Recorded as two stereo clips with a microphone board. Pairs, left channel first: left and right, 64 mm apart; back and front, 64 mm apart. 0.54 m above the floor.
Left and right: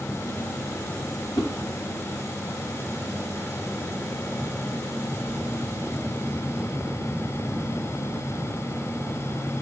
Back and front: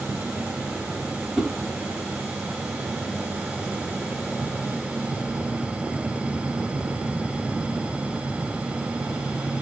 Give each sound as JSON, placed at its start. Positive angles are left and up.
{"t": 1.4, "sound": "a whoosh", "azimuth_deg": 85, "distance_m": 0.9}